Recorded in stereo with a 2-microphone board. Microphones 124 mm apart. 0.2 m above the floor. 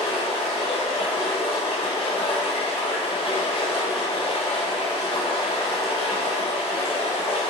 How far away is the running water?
About 2.5 m.